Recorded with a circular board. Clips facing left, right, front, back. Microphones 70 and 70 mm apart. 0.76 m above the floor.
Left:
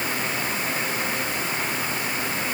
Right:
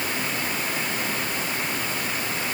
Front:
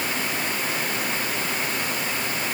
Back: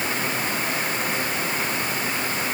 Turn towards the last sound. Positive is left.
No sound to turn to.